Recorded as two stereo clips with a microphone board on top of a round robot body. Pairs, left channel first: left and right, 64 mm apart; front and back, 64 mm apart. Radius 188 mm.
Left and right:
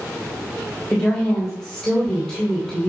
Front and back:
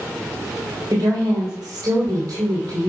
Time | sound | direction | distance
0.9 | a woman speaking | straight behind | 3 m